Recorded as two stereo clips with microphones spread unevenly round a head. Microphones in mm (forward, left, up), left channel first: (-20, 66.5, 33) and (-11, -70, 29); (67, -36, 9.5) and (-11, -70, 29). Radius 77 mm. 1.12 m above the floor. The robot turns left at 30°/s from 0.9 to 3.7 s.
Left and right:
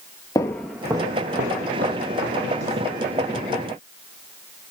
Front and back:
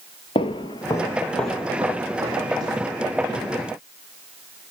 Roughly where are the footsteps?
Ahead left.